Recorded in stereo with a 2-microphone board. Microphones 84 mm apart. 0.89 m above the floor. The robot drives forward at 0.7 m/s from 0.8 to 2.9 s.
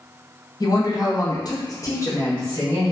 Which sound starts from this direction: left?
A woman speaking, at 0.6 s.